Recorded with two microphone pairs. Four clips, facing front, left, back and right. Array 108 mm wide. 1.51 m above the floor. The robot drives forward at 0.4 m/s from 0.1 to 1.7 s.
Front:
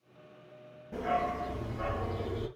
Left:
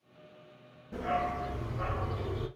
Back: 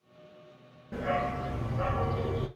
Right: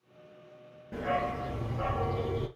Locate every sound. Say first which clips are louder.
0.9 s a dog barking: right 1 dB, back 1 dB; 135° right, 7.5 m